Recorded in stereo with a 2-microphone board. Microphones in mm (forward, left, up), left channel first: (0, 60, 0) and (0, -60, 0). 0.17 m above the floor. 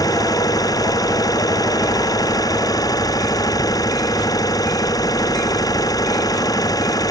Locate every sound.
0.0 s an engine running: 30° left (ahead or behind)